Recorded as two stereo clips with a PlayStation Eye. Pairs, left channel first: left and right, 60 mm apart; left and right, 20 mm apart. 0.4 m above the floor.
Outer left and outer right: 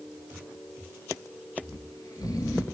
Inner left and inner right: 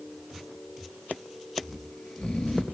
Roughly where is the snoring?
Left.